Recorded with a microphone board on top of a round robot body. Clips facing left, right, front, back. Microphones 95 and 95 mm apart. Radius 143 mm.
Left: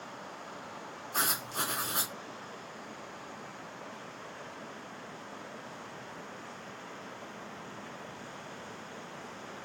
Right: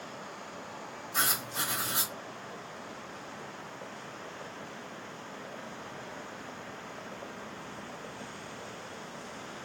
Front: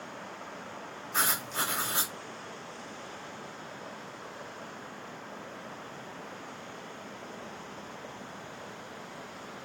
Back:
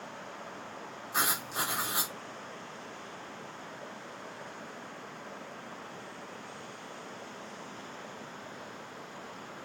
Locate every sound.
1.1 s writing: 105° left, 1.8 m